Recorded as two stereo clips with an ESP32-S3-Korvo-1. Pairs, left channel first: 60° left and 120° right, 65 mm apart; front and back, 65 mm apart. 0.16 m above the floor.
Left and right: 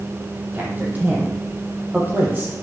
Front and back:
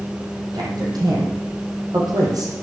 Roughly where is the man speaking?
Behind.